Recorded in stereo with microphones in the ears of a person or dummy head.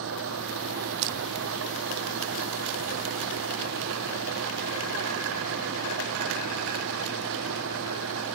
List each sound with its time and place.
0.0 s an engine running: 75° right (ahead or behind)
1.0 s crushing: 60° right (ahead or behind)